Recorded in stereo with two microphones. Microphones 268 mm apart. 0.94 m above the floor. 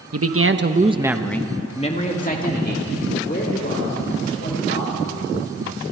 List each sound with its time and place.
0.1 s a man speaking: 60° right (ahead or behind), 1.2 m; by 5.3 s 45° left (ahead or behind), 5.5 m